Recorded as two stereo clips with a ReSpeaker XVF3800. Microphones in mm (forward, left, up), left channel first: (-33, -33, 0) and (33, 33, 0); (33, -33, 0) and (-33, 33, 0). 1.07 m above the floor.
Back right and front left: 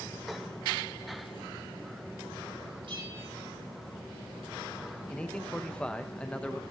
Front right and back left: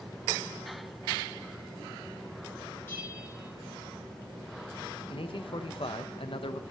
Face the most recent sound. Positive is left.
turn(degrees=-55)